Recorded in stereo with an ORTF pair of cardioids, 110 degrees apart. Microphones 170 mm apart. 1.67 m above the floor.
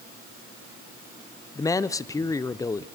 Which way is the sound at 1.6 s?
20° left.